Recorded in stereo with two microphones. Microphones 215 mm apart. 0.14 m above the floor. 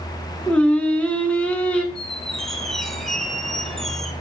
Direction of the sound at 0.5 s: 5° left (ahead or behind).